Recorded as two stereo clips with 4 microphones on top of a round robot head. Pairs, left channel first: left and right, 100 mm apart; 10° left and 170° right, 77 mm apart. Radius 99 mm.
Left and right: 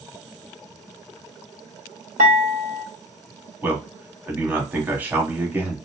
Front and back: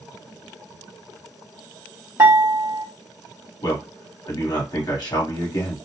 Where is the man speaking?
20° right, 1.3 m.